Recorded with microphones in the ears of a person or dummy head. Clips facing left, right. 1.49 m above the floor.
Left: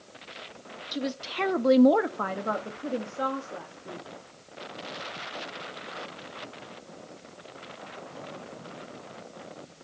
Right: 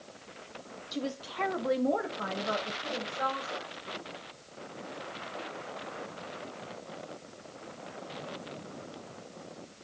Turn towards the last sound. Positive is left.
turn(degrees=40)  # may be behind; listen again after turning